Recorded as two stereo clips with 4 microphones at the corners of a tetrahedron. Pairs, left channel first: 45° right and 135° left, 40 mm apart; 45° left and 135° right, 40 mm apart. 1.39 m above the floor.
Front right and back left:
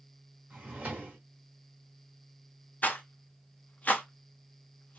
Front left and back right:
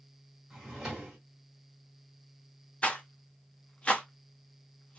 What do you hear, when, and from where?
0.5 s a drawer: 150° left, 1.4 m
2.8 s a rattle: 10° right, 0.7 m